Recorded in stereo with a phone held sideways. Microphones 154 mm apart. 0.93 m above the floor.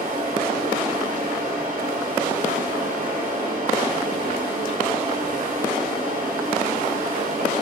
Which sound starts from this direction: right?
A fan, at 0.0 s.